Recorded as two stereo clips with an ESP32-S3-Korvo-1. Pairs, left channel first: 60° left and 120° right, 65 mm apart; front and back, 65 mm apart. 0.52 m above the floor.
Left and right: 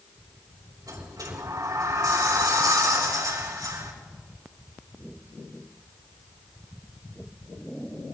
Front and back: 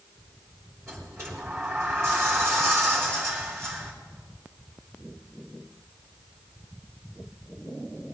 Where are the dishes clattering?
I don't hear dishes clattering.